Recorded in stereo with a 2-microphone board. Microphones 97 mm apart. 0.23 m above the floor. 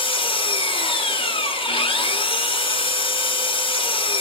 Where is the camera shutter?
No camera shutter in this recording.